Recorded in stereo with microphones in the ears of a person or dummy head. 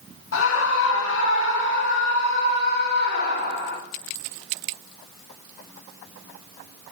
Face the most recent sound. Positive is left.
turn(degrees=60)  # may be behind; listen again after turning